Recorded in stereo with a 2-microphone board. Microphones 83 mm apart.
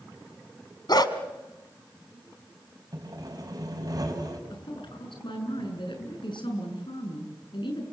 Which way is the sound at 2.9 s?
45° right (ahead or behind).